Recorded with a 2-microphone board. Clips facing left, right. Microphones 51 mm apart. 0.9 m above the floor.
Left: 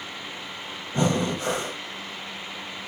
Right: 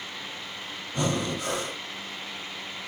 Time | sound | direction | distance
0.9 | breathing | 30° left (ahead or behind) | 1.0 m